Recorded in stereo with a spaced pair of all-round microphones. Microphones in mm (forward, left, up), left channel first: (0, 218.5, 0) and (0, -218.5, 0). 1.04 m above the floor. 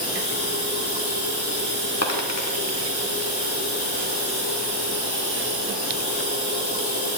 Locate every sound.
0.0 s running water: 20° left (ahead or behind), 6 m
2.0 s a dropped coin: 35° left (ahead or behind), 1.5 m